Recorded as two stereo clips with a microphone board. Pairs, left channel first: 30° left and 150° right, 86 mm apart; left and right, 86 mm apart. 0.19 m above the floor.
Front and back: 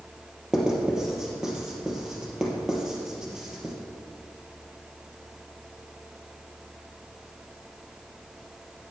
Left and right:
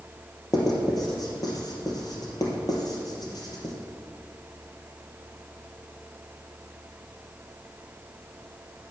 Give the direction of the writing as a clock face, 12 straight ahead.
8 o'clock.